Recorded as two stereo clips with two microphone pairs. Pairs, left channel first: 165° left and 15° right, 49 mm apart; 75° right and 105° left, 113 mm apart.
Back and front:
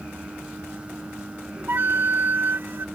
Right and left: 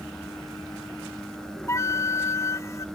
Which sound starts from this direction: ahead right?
A flute, at 1.7 s.